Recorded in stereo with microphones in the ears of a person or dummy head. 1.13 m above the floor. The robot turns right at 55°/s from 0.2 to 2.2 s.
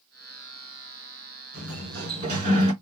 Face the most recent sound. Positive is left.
turn(degrees=-40)